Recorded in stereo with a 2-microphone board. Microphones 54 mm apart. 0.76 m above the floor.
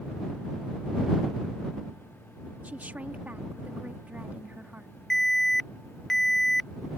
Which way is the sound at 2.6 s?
30° right (ahead or behind).